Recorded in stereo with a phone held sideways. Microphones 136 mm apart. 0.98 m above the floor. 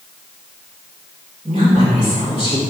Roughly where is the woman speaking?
Right.